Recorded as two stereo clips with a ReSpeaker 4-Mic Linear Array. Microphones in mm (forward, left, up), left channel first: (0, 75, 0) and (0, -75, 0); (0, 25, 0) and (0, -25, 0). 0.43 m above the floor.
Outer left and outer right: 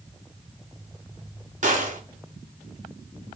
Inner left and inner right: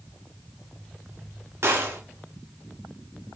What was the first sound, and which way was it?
A gunshot, 55° right (ahead or behind).